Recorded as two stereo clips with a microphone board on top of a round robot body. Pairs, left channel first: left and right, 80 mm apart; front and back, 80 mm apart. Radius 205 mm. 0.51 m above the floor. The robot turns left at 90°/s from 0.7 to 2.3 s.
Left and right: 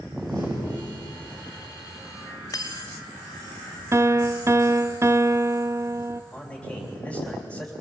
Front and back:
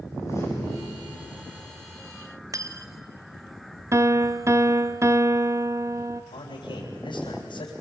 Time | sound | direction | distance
0.1 | a door slam | 55° right | 6.5 m
2.5 | cutlery clinking | 135° left | 1.0 m
3.9 | a piano | 135° right | 0.8 m
6.3 | a man speaking | 5° left | 3.5 m